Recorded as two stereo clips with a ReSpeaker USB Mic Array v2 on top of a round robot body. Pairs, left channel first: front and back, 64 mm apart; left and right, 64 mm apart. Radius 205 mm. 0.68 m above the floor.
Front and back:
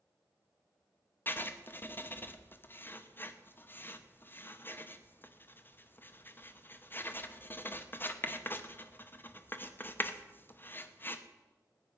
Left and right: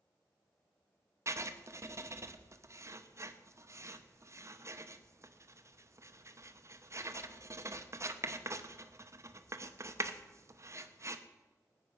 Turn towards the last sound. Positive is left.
turn(degrees=-55)